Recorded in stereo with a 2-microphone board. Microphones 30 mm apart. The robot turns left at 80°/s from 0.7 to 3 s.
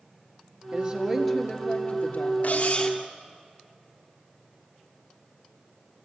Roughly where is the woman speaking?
Behind right.